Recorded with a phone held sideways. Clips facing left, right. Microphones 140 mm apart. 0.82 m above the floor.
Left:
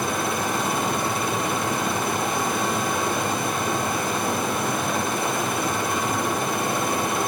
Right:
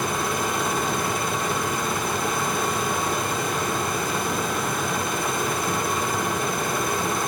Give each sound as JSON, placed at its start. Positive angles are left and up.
{"t": 0.0, "sound": "running water", "side_deg": 65, "distance_m": 5.5}